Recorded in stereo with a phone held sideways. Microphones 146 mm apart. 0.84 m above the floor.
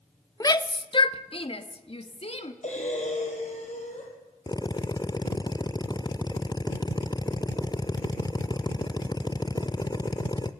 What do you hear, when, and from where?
0.4 s a shout: 25° left (ahead or behind), 0.7 m; by 2.5 s 45° left (ahead or behind), 1.9 m
2.6 s breathing: 55° left (ahead or behind), 5 m
4.5 s a drill: 30° left (ahead or behind), 0.8 m